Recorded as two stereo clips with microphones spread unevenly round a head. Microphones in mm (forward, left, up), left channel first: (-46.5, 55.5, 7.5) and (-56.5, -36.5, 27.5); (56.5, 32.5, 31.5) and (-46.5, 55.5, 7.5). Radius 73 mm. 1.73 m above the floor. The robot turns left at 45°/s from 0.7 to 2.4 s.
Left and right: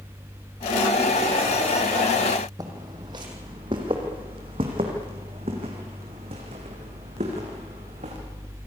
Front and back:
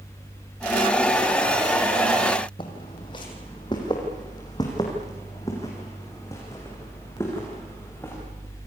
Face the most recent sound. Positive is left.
turn(degrees=-85)